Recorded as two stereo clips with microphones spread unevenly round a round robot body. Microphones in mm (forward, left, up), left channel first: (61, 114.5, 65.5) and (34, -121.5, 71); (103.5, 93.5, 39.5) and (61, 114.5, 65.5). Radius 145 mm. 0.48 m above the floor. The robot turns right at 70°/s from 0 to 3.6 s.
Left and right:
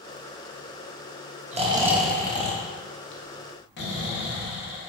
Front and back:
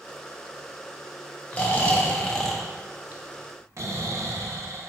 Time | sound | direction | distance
1.5 | snoring | 40° right | 0.7 m